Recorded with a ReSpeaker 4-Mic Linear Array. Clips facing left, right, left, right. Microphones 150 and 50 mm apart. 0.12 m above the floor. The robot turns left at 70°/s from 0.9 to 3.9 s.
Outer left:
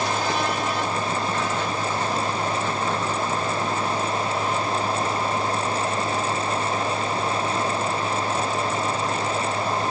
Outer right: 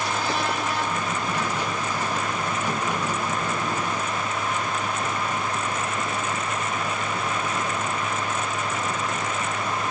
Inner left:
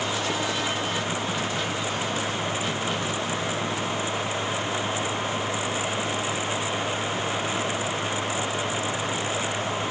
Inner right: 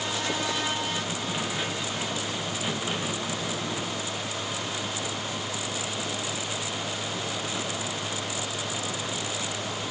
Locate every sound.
Only background noise.